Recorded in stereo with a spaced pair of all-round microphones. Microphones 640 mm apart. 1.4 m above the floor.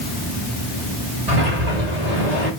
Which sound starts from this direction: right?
A sliding door, at 1.3 s.